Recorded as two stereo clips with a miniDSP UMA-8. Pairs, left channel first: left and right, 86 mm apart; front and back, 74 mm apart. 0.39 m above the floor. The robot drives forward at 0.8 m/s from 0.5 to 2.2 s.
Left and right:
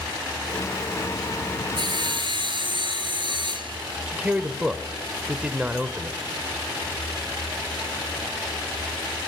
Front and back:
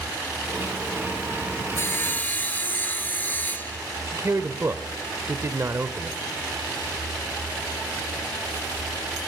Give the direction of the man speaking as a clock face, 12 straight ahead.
5 o'clock.